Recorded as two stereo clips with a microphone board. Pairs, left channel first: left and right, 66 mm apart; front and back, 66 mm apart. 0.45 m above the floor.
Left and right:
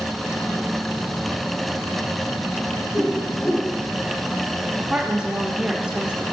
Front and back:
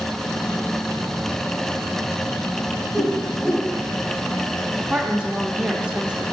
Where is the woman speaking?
130° right, 0.7 m.